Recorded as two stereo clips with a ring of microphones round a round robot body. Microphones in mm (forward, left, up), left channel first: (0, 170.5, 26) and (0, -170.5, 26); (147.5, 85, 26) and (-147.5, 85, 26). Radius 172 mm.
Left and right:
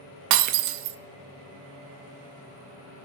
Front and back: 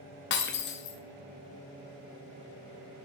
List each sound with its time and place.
0.3 s breaking glass: 60° right, 0.5 m